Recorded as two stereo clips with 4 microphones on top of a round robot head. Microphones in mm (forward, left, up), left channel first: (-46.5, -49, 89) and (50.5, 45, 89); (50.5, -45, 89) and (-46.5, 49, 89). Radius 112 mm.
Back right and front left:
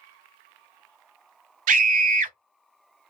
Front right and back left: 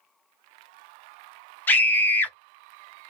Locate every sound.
1.7 s a scream: 35° left, 0.9 m